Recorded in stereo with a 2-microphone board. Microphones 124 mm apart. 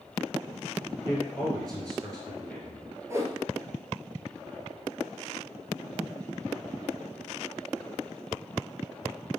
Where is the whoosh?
25° right (ahead or behind), 0.7 m.